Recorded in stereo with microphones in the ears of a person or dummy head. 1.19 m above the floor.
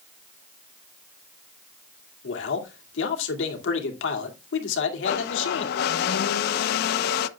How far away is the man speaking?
About 2 m.